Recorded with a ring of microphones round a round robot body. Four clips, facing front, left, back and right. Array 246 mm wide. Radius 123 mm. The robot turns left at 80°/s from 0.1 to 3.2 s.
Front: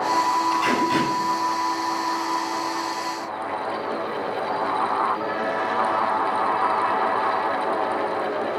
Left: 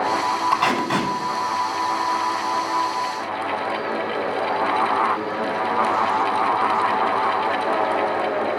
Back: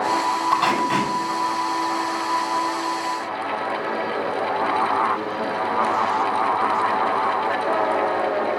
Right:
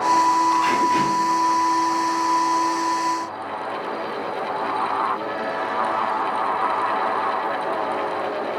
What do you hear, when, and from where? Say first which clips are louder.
0.5 s tape being pulled: right 2 dB, back 1 dB; 140° left, 6.5 m; by 1.1 s 90° left, 6.5 m